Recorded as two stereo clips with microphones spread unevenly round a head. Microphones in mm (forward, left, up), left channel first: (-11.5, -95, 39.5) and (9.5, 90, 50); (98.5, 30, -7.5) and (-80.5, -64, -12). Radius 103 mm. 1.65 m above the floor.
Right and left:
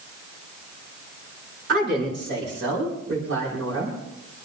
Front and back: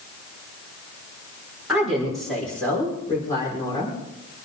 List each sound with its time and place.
1.7 s a woman speaking: 120° left, 6 m; by 4.0 s 100° left, 6 m